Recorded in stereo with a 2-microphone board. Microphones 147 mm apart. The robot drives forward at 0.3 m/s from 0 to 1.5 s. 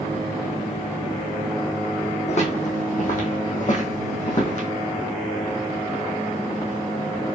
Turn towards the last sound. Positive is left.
turn(degrees=50)  # may be behind; listen again after turning